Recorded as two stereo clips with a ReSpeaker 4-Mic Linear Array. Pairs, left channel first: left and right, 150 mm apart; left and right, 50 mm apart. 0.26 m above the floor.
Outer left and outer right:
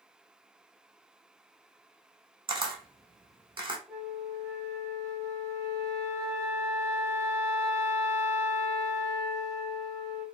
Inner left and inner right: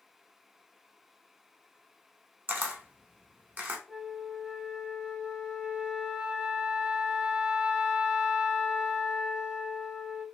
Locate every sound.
2.5 s a camera shutter: 35° right (ahead or behind), 0.7 m
3.9 s a flute: 20° right (ahead or behind), 0.8 m